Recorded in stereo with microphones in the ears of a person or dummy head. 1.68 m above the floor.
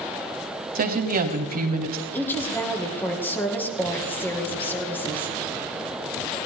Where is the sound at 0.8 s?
45° right (ahead or behind), 1.2 m.